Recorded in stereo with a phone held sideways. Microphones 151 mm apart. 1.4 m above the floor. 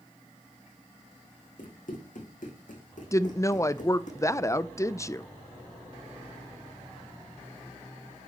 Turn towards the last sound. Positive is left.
turn(degrees=20)  # may be behind; listen again after turning